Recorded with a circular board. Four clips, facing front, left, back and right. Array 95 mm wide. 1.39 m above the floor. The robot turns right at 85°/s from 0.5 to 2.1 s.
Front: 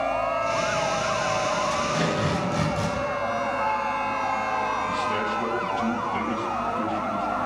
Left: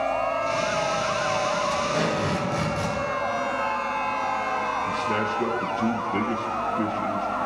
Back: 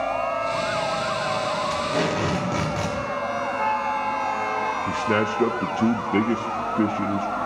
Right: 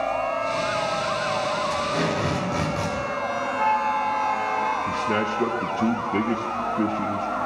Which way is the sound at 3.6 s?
125° right.